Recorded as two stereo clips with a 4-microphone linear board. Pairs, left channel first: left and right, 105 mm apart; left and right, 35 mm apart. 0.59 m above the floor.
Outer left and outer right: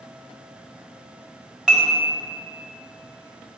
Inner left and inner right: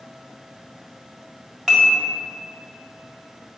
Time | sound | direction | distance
1.7 | dishes clattering | 5° right (ahead or behind) | 1.6 m